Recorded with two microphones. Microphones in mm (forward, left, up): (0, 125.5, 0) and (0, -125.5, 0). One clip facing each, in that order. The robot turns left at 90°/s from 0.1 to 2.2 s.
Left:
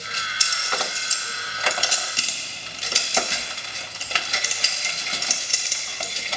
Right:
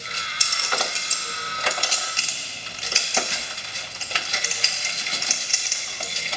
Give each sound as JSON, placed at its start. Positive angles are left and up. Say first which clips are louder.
{"t": 0.4, "sound": "a clink", "louder": "right 1 dB", "side_deg": -55, "distance_m": 0.9}